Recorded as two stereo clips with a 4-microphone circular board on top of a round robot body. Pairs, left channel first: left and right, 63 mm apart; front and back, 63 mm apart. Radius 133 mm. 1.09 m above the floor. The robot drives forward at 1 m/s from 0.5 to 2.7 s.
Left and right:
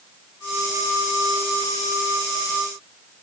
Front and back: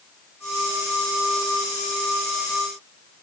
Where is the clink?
No clink in this recording.